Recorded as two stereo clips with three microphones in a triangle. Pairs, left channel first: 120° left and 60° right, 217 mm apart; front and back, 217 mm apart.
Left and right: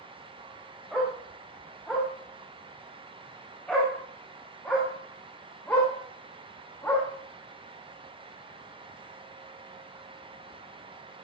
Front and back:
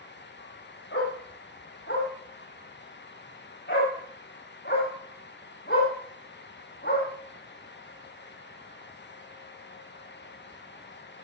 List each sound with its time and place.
0.9 s a dog barking: 30° left, 7.5 m; by 7.0 s 40° left, 10 m